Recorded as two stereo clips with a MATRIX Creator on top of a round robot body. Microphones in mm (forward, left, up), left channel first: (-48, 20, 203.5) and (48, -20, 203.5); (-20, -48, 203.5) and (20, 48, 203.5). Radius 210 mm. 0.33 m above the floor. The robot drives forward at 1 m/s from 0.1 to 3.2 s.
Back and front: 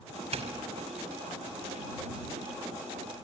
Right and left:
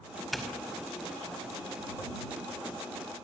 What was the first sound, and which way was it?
A doorbell, 25° right.